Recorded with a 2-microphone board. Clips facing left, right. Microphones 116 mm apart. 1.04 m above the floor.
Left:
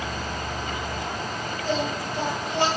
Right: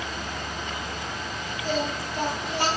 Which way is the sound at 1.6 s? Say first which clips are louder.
Left 1 dB; 25° left (ahead or behind).